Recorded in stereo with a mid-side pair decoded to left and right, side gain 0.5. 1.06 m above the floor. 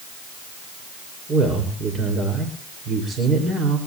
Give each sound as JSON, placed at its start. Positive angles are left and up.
{"t": 1.3, "sound": "a man speaking", "azimuth_deg": -40, "distance_m": 5.0}